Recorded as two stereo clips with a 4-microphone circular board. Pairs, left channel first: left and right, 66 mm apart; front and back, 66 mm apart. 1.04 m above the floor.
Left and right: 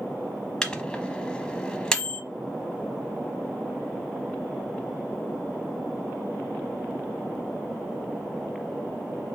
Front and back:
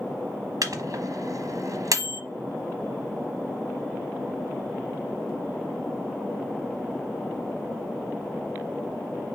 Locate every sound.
0.6 s a microwave: 165° left, 0.8 m